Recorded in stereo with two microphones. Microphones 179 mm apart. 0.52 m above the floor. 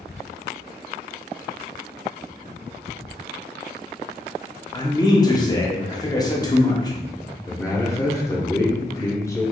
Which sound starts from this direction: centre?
A man speaking, at 7.5 s.